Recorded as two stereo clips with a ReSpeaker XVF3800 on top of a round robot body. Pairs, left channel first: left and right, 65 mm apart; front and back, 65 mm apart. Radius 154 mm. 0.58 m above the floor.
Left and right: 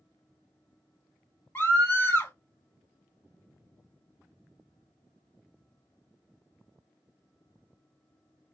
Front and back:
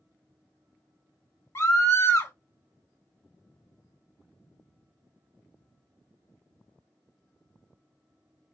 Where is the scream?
40° left, 2 m.